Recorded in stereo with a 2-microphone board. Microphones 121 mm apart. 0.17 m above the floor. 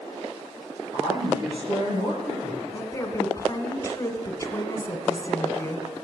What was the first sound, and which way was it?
A woman speaking, 35° right (ahead or behind).